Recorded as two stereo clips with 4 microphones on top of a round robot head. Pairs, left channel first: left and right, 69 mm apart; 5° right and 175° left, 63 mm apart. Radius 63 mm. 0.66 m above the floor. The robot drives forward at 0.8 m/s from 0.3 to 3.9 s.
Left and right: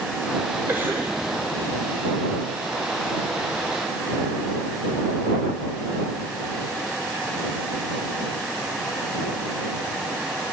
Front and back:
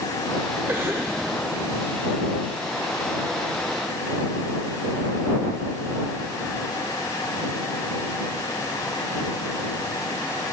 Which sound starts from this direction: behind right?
A cough, at 0.7 s.